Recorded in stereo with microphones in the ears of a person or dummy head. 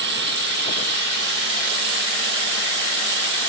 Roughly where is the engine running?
Right.